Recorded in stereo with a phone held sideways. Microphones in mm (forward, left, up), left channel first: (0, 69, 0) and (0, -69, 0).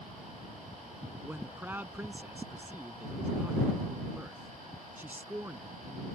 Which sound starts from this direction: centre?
A man speaking, at 1.2 s.